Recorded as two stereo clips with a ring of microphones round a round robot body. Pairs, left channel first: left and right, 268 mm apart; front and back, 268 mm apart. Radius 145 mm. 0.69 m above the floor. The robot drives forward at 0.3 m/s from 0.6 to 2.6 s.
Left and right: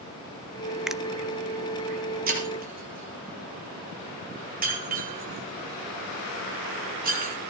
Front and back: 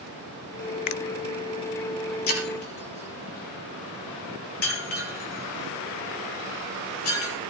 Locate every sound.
0.9 s a finger snap: straight ahead, 0.6 m
2.3 s breaking glass: 35° right, 9.5 m